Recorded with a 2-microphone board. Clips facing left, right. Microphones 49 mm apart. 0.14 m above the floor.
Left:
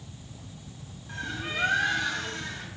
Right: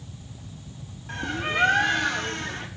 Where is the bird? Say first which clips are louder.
Right 6 dB; 60° right (ahead or behind), 1.0 m.